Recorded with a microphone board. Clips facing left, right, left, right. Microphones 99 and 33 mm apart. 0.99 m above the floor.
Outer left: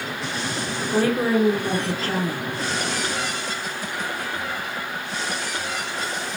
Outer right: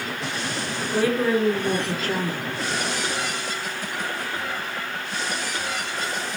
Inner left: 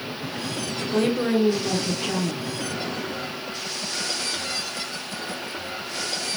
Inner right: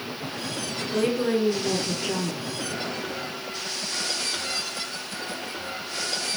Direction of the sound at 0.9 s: 35° left (ahead or behind).